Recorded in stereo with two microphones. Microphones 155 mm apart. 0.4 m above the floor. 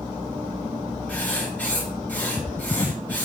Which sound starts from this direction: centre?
Writing, at 1.1 s.